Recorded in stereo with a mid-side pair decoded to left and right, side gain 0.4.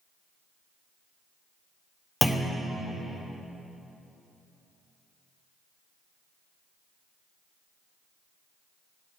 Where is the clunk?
5° left, 1.0 m.